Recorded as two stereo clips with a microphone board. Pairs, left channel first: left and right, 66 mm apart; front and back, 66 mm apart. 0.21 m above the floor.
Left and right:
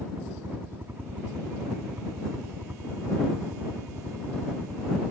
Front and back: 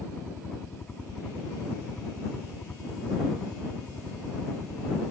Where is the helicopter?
70° right; by 5.1 s 60° right.